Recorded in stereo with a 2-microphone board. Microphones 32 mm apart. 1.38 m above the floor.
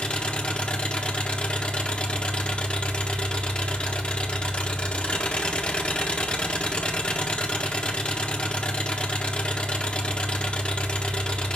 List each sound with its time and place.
0.0 s an engine running: 35° left (ahead or behind), 1.2 m